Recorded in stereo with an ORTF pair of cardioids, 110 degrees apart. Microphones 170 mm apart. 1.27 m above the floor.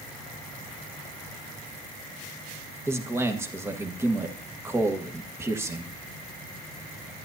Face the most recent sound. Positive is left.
turn(degrees=-15)